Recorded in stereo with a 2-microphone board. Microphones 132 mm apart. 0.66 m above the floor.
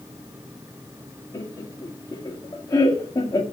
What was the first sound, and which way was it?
Laughter, 30° left (ahead or behind).